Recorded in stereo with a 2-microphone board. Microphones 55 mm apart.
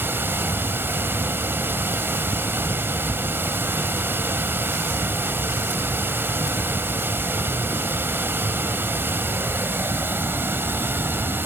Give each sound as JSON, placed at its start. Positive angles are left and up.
{"t": 0.0, "sound": "running water", "side_deg": -45, "distance_m": 1.0}